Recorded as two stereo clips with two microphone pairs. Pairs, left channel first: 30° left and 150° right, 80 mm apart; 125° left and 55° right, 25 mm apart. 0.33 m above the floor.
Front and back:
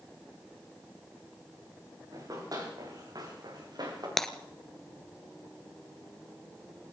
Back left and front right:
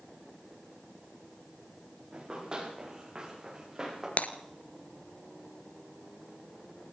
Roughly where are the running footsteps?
Right.